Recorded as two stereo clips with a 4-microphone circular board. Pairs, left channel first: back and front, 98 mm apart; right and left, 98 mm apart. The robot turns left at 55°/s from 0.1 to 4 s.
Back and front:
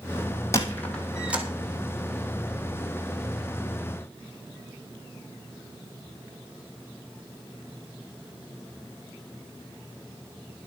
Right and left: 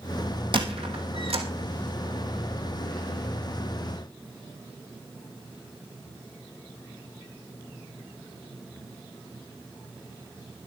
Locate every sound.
0.5 s a squeak: 120° left, 2 m; by 1.4 s 70° left, 2 m